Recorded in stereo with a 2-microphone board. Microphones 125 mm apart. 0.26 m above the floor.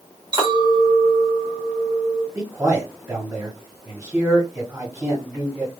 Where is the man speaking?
20° right (ahead or behind), 1.1 m.